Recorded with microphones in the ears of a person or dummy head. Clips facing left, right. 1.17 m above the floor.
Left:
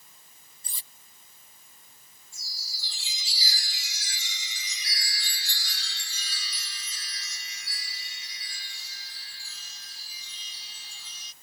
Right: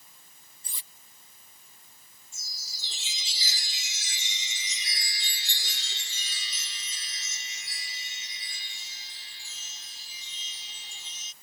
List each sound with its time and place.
0.6 s cutlery clinking: 35° left (ahead or behind)
2.3 s a chime: 20° right (ahead or behind)